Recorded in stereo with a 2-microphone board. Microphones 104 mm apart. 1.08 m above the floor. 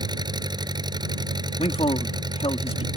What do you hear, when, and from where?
0.0 s an engine running: 40° right (ahead or behind)
1.6 s a man speaking: 70° left (ahead or behind)